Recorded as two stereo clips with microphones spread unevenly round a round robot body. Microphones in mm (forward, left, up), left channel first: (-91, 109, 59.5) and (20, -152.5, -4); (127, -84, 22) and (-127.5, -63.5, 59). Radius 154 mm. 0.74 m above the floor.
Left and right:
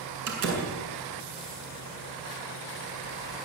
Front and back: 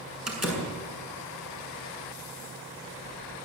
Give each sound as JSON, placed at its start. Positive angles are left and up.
{"t": 0.3, "sound": "a door slam", "azimuth_deg": -95, "distance_m": 7.0}